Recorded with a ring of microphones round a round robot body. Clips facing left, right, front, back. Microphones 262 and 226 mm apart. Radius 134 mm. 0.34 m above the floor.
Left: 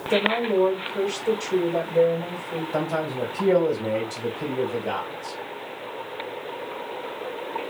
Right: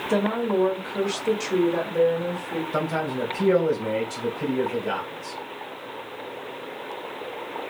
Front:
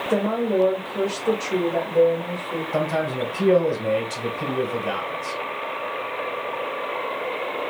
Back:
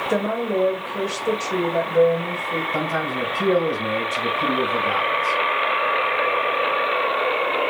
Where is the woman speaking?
115° right, 1.8 m.